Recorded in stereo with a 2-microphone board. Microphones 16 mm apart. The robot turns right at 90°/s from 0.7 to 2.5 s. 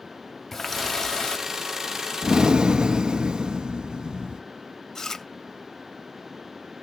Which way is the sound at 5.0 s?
30° left (ahead or behind).